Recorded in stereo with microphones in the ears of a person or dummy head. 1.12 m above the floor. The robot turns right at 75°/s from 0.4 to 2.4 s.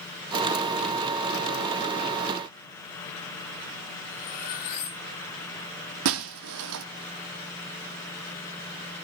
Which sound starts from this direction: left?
Cutlery clinking, at 4.1 s.